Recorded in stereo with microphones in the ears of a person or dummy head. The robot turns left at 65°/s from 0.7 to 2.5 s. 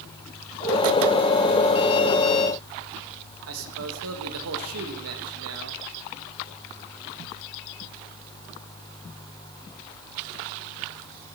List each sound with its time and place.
3.5 s a man speaking: 85° right, 3 m